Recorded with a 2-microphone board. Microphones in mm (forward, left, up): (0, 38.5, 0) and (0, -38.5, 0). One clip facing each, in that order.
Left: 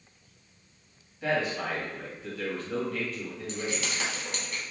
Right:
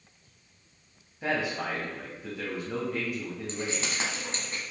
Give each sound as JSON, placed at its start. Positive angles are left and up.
{"t": 1.2, "sound": "a man speaking", "side_deg": -15, "distance_m": 0.9}
{"t": 3.5, "sound": "keys jangling", "side_deg": -30, "distance_m": 1.0}